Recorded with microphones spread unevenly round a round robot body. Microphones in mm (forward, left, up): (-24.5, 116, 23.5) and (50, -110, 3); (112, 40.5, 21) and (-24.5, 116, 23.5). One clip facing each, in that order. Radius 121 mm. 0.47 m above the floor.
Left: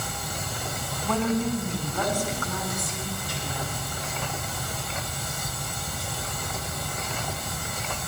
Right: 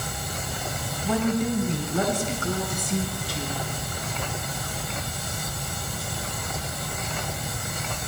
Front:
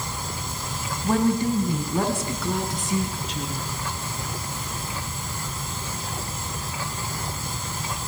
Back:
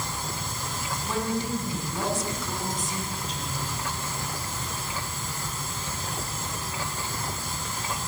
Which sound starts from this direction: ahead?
A woman speaking, at 1.0 s.